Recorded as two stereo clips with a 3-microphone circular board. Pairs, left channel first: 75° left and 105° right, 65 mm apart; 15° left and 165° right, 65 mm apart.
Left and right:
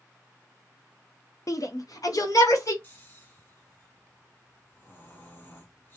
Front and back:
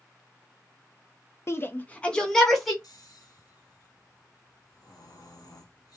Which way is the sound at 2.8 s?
15° left.